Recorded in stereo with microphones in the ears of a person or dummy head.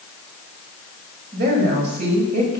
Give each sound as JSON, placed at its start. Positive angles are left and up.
{"t": 1.3, "sound": "a woman speaking", "side_deg": -55, "distance_m": 7.0}